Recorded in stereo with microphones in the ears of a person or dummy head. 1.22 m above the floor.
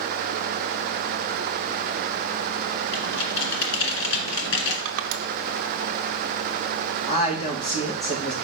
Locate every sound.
2.9 s typing on a keyboard: 70° left (ahead or behind), 1.7 m
4.8 s crushing: 70° right (ahead or behind), 0.6 m
7.1 s a woman speaking: 35° left (ahead or behind), 2 m